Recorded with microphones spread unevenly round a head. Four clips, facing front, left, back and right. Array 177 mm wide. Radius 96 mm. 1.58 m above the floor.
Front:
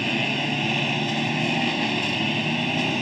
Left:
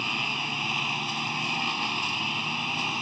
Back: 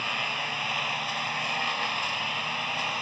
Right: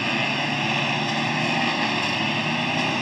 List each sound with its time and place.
0.0 s a lawn mower: 40° right